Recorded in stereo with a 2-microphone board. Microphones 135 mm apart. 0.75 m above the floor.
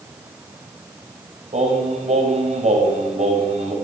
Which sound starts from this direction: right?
Singing, at 1.5 s.